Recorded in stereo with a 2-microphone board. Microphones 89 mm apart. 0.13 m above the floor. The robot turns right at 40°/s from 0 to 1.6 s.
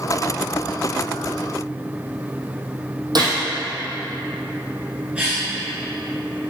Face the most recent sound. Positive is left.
turn(degrees=-15)  # may be behind; listen again after turning